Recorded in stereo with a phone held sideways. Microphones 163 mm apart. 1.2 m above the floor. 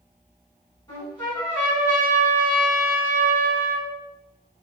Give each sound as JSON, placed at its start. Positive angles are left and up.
{"t": 0.9, "sound": "a trumpet", "side_deg": 25, "distance_m": 1.9}